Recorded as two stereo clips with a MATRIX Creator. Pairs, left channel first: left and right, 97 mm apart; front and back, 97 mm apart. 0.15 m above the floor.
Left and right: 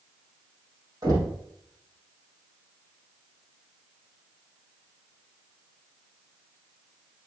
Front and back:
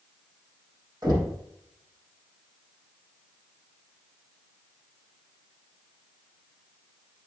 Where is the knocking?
135° right, 4.5 m.